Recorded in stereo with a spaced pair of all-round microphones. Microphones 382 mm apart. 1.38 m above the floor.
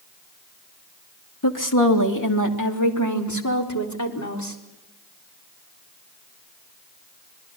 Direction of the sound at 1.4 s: 55° left (ahead or behind).